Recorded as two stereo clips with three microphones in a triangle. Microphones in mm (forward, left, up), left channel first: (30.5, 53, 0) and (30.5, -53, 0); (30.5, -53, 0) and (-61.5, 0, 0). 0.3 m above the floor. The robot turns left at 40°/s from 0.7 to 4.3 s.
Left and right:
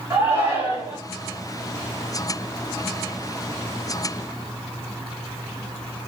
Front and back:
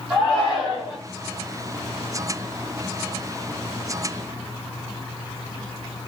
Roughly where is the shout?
Behind right.